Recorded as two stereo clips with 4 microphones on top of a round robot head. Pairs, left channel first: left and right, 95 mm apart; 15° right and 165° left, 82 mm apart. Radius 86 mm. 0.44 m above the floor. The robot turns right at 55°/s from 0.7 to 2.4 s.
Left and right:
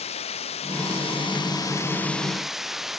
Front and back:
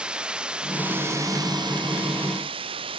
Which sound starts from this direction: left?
Running water, at 0.0 s.